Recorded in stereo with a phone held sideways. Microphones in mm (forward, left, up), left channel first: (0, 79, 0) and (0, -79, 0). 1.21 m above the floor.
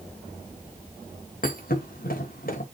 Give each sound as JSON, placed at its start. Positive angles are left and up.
{"t": 1.4, "sound": "a thud", "side_deg": 65, "distance_m": 3.0}